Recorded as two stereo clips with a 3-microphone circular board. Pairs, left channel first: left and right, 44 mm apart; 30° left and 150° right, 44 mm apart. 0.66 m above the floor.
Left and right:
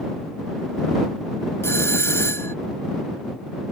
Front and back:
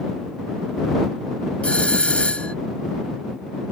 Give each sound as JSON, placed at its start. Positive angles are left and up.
{"t": 1.6, "sound": "a doorbell", "azimuth_deg": 95}